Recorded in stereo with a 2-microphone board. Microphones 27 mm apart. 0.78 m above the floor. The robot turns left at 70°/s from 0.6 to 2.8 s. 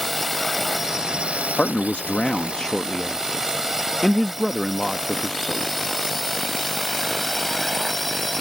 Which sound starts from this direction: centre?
A drone, at 0.0 s.